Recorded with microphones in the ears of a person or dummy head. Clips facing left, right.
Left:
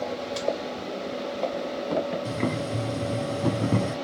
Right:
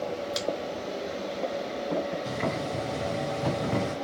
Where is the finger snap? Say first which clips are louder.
Left 1 dB; 30° right (ahead or behind), 1.2 m.